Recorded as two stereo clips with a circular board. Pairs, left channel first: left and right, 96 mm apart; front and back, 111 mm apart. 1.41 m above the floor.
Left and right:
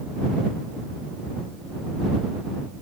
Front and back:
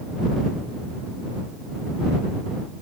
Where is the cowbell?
I don't hear a cowbell.